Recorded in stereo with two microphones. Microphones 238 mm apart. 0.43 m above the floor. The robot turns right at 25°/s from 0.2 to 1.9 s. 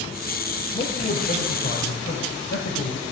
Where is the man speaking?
35° left (ahead or behind), 1.8 m; by 3.0 s 55° left (ahead or behind), 1.8 m.